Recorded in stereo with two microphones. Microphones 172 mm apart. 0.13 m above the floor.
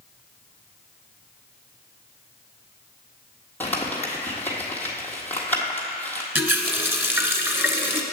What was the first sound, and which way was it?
Crumpling, 10° left (ahead or behind).